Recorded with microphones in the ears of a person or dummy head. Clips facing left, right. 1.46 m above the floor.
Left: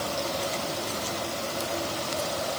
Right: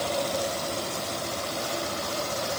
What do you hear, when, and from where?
Only background noise.